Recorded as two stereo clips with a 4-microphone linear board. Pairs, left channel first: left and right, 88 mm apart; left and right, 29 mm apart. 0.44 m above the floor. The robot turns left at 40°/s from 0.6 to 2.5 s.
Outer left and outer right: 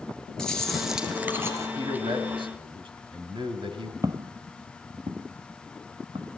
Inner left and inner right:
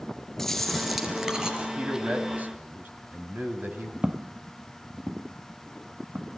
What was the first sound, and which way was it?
Chewing, 10° left.